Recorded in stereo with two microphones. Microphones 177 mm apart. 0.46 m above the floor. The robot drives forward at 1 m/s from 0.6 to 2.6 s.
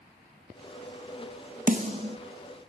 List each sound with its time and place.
1.7 s a snare drum: 45° right (ahead or behind), 0.8 m; by 2.2 s 30° right (ahead or behind), 1.2 m